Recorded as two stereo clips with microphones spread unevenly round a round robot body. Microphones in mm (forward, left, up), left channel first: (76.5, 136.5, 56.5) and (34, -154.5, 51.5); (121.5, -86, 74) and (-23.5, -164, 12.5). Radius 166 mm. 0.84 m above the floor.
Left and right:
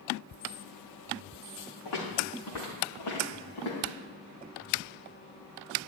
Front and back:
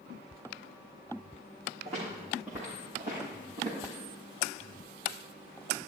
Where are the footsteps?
110° left, 5.5 m; by 3.9 s 130° left, 6.5 m.